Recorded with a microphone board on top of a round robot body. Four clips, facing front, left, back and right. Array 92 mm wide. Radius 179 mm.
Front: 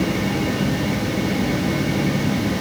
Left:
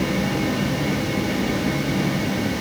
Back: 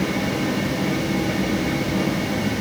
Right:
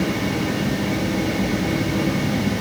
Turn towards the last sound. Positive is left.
No sound to turn to.